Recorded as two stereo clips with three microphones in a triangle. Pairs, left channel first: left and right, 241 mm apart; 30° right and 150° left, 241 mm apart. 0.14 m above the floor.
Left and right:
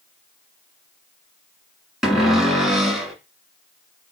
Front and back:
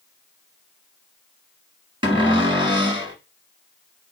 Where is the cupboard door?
175° right, 1.1 m.